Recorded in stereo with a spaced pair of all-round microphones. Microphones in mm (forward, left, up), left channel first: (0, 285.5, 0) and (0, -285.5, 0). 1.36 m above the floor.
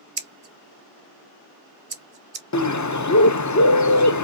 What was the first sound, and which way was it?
Scissors, 70° right (ahead or behind).